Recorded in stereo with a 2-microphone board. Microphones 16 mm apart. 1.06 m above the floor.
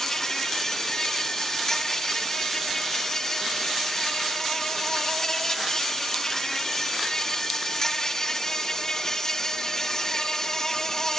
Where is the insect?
35° left (ahead or behind), 1.5 m.